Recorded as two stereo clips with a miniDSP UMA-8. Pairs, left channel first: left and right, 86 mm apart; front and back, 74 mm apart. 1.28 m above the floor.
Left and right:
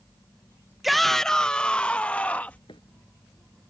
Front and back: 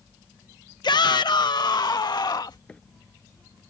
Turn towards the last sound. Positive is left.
turn(degrees=75)